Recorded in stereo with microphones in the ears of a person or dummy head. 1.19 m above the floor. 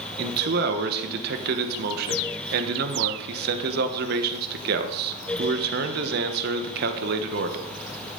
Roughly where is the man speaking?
Right.